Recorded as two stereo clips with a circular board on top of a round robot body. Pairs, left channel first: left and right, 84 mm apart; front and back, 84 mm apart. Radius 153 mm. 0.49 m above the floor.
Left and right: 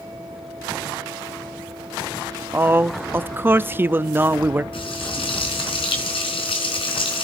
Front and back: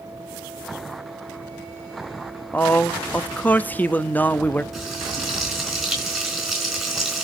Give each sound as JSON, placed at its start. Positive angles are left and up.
{"t": 2.5, "sound": "a man speaking", "azimuth_deg": -50, "distance_m": 0.7}
{"t": 4.7, "sound": "frying", "azimuth_deg": 90, "distance_m": 4.5}